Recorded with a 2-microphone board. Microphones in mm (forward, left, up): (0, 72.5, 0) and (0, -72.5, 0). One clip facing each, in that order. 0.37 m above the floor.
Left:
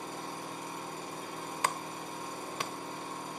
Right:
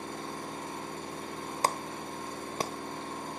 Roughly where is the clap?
Right.